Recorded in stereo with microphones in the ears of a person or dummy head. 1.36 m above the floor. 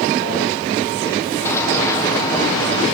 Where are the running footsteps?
20° left (ahead or behind), 2.5 m; by 2.9 s 25° left (ahead or behind), 4.5 m.